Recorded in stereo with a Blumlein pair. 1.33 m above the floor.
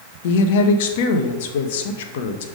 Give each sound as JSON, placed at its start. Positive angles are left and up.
{"t": 0.2, "sound": "a woman speaking", "azimuth_deg": 55, "distance_m": 0.8}